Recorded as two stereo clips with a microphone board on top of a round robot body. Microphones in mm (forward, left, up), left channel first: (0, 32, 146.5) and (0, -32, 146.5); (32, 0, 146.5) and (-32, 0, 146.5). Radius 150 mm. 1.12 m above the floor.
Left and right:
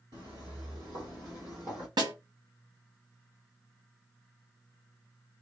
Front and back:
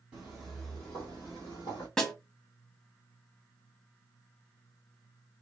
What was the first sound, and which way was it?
Footsteps, 110° right.